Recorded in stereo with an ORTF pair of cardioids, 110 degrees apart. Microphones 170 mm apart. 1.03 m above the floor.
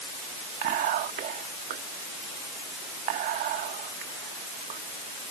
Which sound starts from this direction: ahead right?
Whispering, at 0.6 s.